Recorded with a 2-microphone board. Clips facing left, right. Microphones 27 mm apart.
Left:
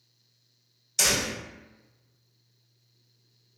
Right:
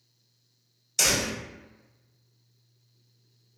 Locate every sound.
1.0 s a door slam: centre (ahead or behind), 1.6 m